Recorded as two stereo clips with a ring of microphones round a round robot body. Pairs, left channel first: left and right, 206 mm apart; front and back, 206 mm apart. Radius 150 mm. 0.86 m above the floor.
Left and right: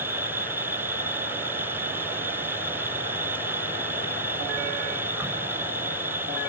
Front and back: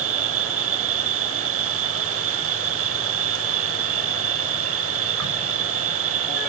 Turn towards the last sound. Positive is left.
turn(degrees=-175)